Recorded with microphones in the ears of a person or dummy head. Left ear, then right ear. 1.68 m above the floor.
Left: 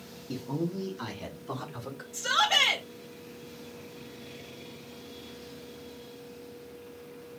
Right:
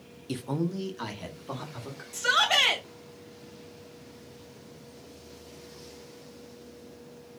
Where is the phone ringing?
No phone ringing in this recording.